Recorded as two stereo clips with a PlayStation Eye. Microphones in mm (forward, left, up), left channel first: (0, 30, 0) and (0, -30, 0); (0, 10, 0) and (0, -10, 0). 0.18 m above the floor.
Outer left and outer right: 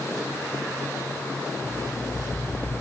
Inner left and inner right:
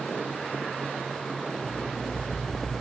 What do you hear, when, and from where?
1.6 s an alarm clock: 65° left (ahead or behind), 0.9 m